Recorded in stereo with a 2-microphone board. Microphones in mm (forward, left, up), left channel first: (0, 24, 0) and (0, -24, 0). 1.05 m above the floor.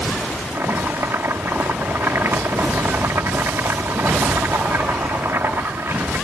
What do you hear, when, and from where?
0.5 s chopping: 55° right (ahead or behind)